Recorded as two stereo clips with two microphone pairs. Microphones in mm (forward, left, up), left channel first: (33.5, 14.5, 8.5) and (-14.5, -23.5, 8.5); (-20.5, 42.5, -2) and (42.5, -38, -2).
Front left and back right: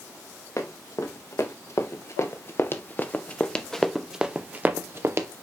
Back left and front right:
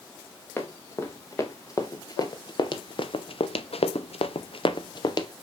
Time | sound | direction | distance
0.6 | running footsteps | 65° left | 2.5 m